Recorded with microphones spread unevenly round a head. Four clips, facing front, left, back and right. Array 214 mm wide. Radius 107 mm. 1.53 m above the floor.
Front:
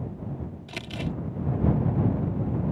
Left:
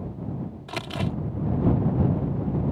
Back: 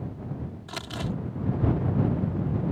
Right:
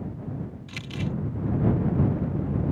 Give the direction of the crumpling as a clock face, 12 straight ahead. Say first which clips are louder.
Left 4 dB, even; 9 o'clock.